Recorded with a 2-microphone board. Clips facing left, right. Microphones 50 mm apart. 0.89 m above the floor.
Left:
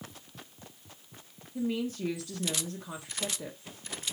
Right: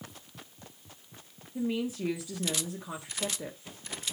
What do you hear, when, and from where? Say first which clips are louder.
1.6 s a woman speaking: even; 10° right (ahead or behind), 1.4 m